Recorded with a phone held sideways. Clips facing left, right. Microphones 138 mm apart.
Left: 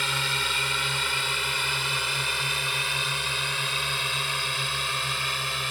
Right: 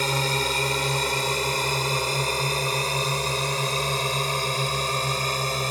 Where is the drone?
40° right (ahead or behind).